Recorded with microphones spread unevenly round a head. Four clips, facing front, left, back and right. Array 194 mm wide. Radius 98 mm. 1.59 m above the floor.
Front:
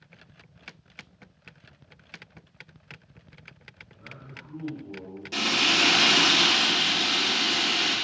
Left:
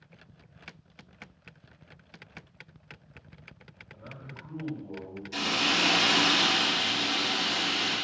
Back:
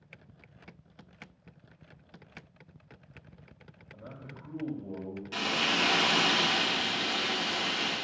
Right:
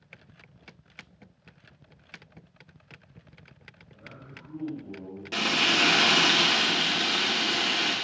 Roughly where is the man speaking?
Behind.